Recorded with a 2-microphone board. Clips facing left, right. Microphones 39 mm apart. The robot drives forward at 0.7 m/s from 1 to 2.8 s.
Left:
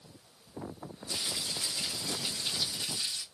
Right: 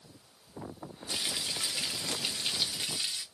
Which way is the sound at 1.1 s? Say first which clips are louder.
Right 2 dB; 50° right (ahead or behind).